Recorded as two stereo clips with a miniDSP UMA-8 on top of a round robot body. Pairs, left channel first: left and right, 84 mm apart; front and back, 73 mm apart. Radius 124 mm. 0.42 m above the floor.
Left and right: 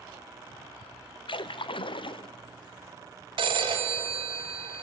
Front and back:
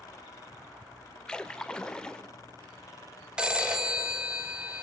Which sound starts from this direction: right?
A phone ringing, at 3.4 s.